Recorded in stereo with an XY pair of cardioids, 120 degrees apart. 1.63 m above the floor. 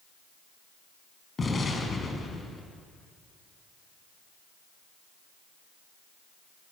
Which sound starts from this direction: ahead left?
An explosion, at 1.4 s.